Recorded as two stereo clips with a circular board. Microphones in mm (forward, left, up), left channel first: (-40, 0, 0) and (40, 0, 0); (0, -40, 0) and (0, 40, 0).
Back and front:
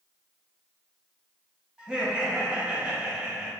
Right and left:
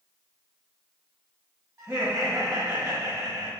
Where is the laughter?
70° left, 0.8 m.